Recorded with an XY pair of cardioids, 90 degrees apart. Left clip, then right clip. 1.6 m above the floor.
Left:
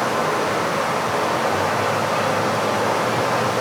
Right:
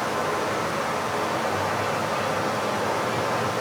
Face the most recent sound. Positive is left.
turn(degrees=45)